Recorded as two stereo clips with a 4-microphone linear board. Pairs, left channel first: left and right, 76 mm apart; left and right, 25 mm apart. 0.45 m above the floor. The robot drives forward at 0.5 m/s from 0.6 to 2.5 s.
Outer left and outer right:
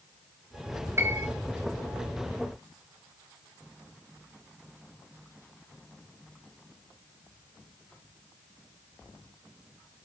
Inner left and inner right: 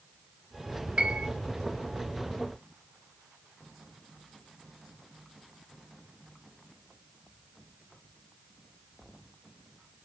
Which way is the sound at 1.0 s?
35° right (ahead or behind).